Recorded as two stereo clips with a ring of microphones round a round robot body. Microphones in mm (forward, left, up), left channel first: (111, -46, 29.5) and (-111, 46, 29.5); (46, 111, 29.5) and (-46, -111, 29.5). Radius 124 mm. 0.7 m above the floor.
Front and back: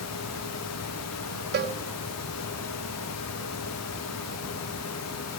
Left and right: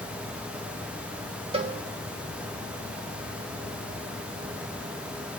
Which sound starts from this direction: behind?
A cowbell, at 1.5 s.